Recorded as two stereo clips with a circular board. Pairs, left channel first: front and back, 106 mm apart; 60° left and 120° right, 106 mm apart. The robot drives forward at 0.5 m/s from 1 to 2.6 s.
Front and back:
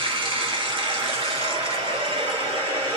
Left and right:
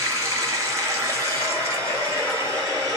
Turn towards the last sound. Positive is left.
turn(degrees=-175)